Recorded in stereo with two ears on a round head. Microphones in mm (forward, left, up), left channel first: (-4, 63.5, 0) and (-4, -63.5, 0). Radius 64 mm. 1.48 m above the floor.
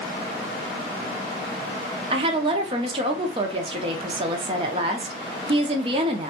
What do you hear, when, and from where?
2.1 s a woman speaking: 35° right (ahead or behind), 0.5 m